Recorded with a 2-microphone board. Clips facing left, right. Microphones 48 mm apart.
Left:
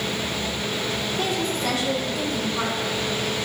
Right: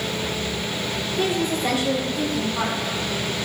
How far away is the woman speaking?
About 1.9 m.